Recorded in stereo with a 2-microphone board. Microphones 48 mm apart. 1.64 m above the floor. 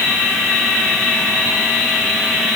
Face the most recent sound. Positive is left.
No sound to turn to.